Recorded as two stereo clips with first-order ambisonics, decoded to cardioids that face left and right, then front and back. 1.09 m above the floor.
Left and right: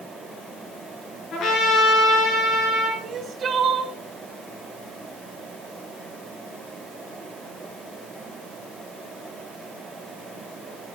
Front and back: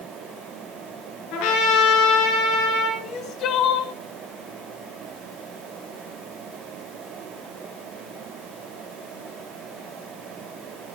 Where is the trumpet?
30° left, 6 m.